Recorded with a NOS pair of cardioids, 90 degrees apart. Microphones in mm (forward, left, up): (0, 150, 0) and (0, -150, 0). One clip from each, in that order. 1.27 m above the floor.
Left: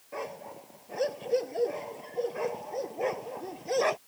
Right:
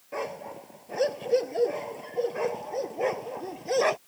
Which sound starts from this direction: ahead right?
A dog barking, at 0.1 s.